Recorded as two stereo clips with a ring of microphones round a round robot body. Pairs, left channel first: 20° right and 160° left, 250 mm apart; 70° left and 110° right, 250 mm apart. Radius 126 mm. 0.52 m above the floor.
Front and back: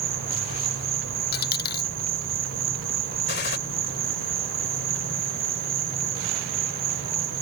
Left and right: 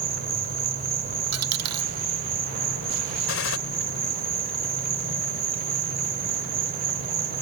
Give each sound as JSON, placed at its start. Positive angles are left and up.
{"t": 0.0, "sound": "an insect", "azimuth_deg": -165}
{"t": 1.3, "sound": "a dropped coin", "azimuth_deg": -80}
{"t": 3.3, "sound": "a gunshot", "azimuth_deg": 30}